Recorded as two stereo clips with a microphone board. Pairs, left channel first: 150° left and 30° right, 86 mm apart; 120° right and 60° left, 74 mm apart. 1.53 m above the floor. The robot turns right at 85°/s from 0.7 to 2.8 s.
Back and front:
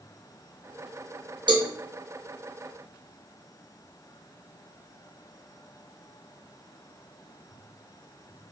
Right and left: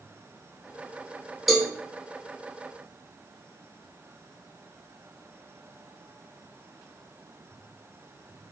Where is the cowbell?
30° right, 0.7 m; by 1.7 s 10° right, 0.7 m.